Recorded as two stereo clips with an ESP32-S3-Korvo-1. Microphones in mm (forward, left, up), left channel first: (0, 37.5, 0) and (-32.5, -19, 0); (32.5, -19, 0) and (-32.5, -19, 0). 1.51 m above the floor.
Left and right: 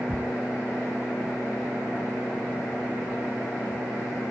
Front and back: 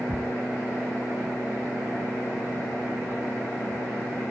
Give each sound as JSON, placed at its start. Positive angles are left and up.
{"t": 0.1, "sound": "ticking", "azimuth_deg": -20, "distance_m": 0.9}